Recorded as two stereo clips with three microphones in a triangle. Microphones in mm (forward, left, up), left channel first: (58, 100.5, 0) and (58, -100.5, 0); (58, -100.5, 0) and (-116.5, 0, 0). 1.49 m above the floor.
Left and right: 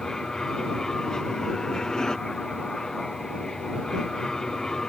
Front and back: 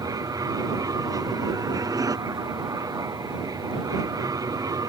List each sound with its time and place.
0.0 s an aircraft: 170° left